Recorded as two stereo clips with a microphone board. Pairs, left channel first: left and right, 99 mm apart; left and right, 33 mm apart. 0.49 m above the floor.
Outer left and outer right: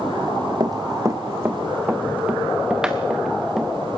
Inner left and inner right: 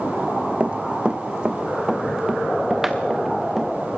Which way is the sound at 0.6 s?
45° right (ahead or behind).